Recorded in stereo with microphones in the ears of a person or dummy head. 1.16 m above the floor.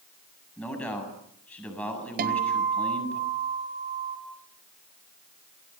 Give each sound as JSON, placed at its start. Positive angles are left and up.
{"t": 0.6, "sound": "a man speaking", "side_deg": 5, "distance_m": 8.5}
{"t": 2.2, "sound": "a guitar", "side_deg": -50, "distance_m": 3.5}